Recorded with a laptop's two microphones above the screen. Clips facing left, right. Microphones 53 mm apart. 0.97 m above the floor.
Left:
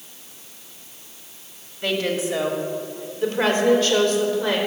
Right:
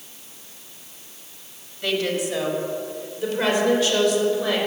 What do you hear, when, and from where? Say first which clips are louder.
1.8 s a woman speaking: left 1 dB; 25° left (ahead or behind), 2.5 m; by 4.6 s 45° left (ahead or behind), 5 m